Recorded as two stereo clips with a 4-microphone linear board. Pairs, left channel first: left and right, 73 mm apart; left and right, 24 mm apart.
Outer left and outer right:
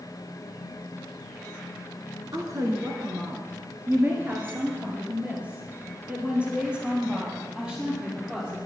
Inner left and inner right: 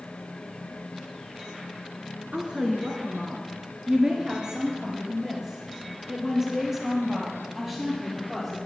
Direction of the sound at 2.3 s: 50° right (ahead or behind).